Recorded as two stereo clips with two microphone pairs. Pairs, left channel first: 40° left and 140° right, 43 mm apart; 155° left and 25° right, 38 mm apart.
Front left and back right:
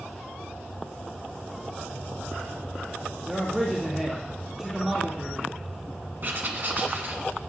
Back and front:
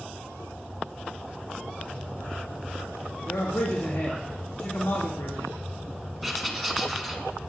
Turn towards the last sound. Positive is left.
turn(degrees=-115)